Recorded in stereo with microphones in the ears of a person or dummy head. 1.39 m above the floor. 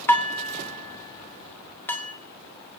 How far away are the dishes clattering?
About 1.9 m.